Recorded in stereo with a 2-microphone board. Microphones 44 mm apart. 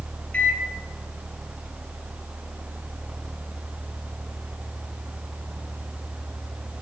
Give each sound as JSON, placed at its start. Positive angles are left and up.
{"t": 0.3, "sound": "a microwave", "side_deg": 30, "distance_m": 1.1}